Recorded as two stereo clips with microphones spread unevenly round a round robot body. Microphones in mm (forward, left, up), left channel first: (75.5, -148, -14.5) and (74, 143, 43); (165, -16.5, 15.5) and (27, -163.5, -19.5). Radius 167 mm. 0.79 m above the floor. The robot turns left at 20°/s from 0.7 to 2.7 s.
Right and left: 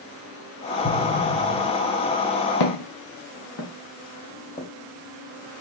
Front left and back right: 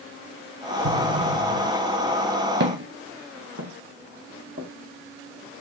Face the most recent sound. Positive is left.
turn(degrees=175)